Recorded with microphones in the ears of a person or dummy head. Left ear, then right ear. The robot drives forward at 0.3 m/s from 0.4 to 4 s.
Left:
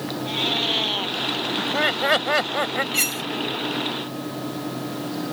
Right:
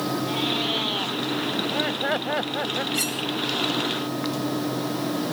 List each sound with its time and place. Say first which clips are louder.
0.2 s a cat meowing: left 5 dB; 15° left (ahead or behind)
1.6 s laughter: left 6 dB; 65° left (ahead or behind); by 2.8 s 70° left (ahead or behind)
2.9 s cutlery clinking: left 3 dB; 35° left (ahead or behind); by 3.2 s 30° left (ahead or behind)